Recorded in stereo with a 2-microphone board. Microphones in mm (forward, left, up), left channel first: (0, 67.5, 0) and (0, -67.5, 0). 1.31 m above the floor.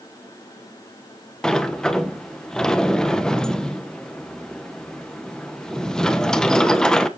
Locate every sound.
1.4 s a sliding door: 5° left (ahead or behind), 1.1 m